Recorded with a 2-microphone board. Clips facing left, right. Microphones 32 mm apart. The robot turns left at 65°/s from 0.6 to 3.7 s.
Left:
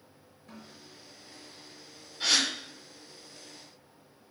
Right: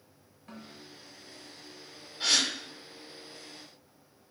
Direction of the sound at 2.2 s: Centre (ahead or behind).